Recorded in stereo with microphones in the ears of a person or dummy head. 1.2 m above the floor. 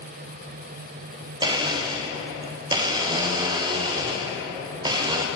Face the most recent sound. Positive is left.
turn(degrees=-20)  # may be behind; listen again after turning